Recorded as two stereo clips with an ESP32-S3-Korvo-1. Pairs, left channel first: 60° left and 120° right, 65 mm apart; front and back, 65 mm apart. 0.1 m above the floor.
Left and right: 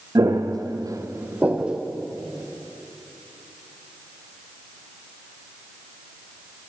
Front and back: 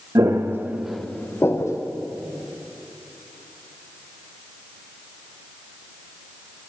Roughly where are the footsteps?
Behind right.